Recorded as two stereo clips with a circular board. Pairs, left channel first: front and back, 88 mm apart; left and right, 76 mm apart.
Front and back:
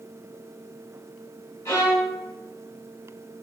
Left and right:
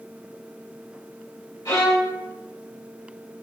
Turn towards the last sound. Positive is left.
turn(degrees=55)